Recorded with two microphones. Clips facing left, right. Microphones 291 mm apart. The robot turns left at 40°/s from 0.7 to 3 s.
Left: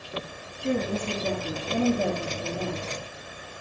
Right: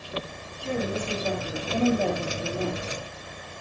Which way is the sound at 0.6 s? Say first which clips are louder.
Left 2 dB; 55° left.